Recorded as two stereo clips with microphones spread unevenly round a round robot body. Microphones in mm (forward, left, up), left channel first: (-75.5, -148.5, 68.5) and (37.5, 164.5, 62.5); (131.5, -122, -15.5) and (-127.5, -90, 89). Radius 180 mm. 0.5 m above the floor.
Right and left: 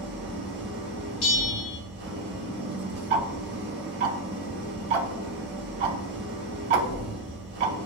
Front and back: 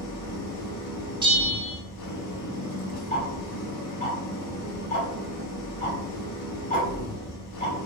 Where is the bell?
100° right, 1.1 m.